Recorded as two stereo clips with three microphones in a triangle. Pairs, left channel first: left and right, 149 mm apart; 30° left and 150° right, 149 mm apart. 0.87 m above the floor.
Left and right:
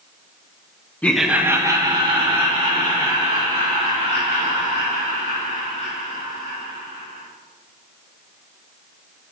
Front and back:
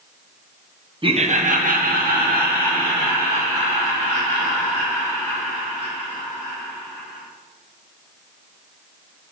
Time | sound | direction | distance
1.0 | laughter | 165° left | 0.6 m